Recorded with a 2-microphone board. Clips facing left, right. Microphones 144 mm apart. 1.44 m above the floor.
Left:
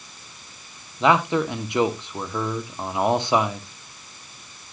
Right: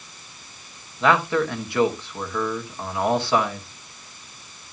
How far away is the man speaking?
About 1.3 m.